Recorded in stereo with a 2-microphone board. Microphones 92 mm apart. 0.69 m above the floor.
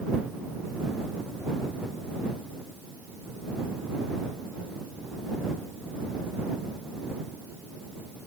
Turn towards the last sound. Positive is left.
No sound to turn to.